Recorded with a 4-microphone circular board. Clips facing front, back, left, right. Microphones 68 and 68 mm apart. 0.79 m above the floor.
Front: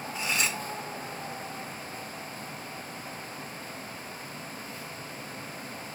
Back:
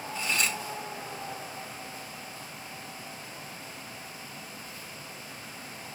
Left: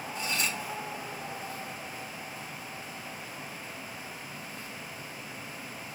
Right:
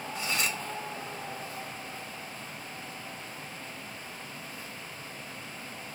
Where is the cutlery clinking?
80° right, 1.1 m.